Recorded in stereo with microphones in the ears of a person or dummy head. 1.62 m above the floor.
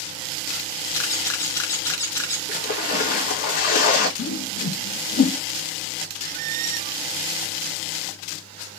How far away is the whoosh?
About 1.4 m.